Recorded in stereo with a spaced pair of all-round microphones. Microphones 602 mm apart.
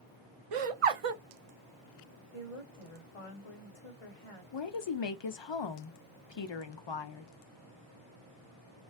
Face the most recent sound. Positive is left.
turn(degrees=50)  # may be behind; listen again after turning